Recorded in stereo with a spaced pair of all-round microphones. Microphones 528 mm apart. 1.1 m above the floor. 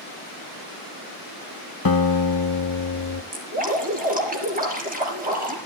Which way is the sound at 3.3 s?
15° right (ahead or behind).